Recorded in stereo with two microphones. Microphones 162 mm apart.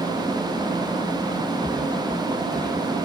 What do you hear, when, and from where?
1.6 s footsteps: 25° right (ahead or behind), 2.5 m; by 2.8 s 15° right (ahead or behind), 3 m